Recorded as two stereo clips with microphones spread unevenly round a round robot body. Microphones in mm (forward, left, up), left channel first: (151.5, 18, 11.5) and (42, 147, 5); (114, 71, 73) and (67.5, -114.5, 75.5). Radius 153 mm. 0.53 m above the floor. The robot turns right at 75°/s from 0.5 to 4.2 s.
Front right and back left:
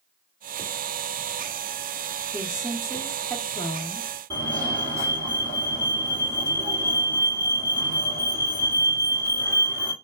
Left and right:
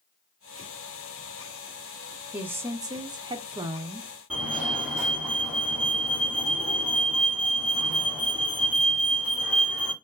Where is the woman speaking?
Straight behind, 0.6 m; by 4.1 s 45° right, 0.6 m.